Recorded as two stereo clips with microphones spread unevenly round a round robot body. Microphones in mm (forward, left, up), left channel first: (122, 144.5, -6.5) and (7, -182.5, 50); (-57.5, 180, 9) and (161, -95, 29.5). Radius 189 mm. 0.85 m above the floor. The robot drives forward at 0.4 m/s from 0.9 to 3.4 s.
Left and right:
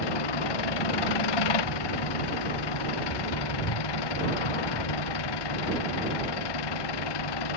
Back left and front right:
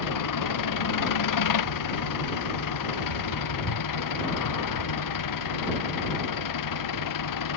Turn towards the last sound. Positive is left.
turn(degrees=95)